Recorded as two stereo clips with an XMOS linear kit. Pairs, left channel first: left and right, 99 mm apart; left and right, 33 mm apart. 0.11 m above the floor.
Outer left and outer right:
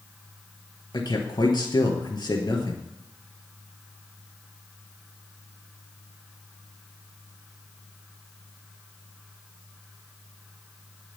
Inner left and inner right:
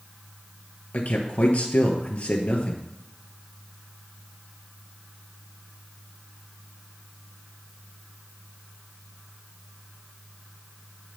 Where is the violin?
No violin in this recording.